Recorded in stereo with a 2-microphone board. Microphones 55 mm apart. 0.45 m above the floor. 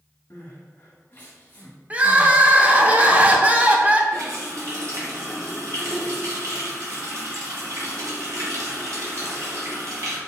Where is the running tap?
65° right (ahead or behind), 1.5 m.